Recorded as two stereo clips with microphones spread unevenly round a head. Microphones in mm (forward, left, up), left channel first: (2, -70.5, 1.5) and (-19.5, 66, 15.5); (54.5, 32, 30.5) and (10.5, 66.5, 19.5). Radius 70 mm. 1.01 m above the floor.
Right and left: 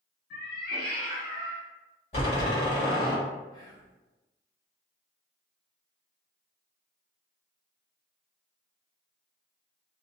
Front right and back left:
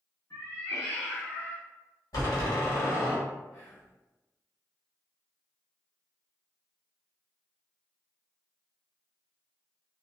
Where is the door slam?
30° right, 1.3 m.